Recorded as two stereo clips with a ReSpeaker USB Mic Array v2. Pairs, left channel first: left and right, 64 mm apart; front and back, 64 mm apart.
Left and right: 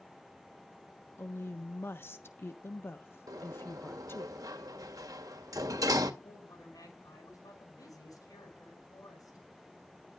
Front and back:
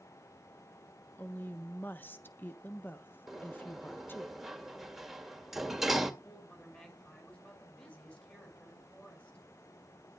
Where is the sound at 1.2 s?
50° left, 1.0 m.